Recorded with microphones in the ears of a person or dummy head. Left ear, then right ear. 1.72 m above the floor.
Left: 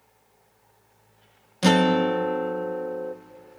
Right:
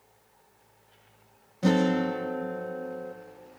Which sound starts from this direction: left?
A guitar, at 1.6 s.